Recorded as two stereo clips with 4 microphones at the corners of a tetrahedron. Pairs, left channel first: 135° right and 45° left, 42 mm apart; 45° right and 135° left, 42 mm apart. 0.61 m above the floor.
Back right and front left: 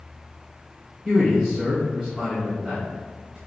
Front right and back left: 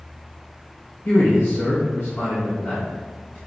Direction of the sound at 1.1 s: 45° right.